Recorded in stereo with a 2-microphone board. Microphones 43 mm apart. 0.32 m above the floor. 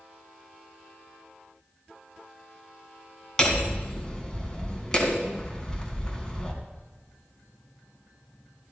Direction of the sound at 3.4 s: 15° left (ahead or behind).